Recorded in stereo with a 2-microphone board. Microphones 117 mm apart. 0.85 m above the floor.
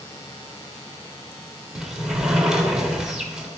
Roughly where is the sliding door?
Centre.